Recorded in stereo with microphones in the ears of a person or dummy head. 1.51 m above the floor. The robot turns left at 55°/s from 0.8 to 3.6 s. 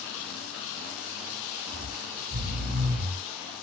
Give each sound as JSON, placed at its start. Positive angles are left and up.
{"t": 1.7, "sound": "snoring", "azimuth_deg": -35, "distance_m": 4.0}